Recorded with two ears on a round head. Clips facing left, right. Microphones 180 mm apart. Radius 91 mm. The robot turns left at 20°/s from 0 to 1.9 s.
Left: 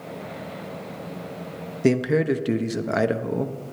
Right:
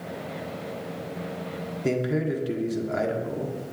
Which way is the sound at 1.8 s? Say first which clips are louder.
Left 6 dB; 80° left.